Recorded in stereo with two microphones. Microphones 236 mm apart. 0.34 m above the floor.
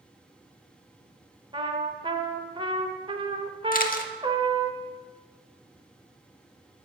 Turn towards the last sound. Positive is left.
turn(degrees=35)  # may be behind; listen again after turning